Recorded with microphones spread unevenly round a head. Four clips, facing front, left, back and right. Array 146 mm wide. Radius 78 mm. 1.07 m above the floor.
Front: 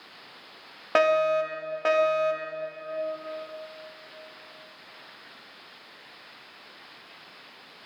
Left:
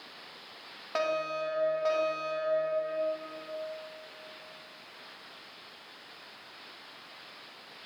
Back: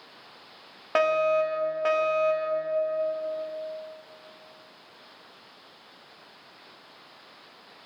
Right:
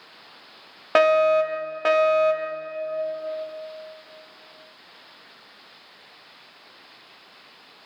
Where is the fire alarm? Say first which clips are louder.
Right 14 dB, front 1 dB; 60° right, 2.5 m.